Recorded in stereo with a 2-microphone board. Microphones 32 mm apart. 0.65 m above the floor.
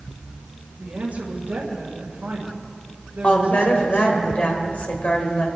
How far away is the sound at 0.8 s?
About 2.5 m.